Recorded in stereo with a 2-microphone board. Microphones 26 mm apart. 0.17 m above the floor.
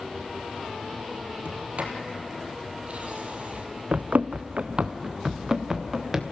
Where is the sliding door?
55° right (ahead or behind), 2 m.